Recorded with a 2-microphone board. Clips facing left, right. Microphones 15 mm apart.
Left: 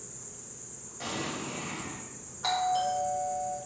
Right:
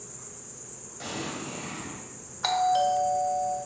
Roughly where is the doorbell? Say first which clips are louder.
Right 4 dB; right.